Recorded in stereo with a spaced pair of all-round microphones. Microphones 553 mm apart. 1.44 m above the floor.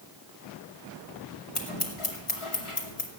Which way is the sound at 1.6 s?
60° left (ahead or behind).